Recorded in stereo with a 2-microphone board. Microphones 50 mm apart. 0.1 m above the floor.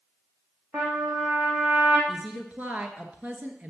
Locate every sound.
0.7 s a trumpet: 55° right (ahead or behind), 3 m
2.1 s a woman speaking: 30° right (ahead or behind), 1.3 m